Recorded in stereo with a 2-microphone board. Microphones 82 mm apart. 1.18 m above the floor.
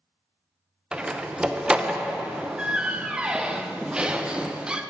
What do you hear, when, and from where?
0.9 s a door slam: 10° right (ahead or behind), 0.5 m